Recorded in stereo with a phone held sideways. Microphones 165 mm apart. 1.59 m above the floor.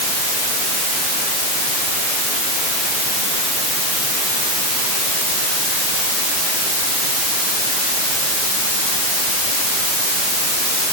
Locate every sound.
Only background noise.